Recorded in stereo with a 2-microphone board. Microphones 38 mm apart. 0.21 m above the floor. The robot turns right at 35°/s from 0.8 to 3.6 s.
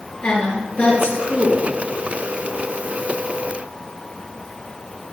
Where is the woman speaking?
40° left, 4 m; by 1.7 s 70° left, 4 m.